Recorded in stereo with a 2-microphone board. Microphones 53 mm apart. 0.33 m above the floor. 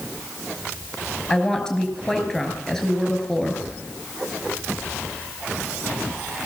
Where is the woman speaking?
10° left (ahead or behind), 5.5 m.